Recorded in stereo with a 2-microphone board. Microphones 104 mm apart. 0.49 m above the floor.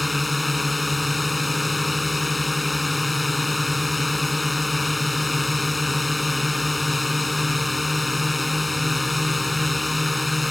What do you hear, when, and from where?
0.0 s a drone: centre (ahead or behind)